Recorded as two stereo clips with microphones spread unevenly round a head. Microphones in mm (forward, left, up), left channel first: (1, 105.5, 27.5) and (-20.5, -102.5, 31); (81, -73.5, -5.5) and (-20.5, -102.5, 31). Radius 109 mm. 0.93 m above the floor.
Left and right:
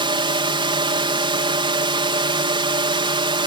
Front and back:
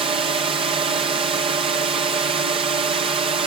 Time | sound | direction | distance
0.0 | a drone | 145° right | ?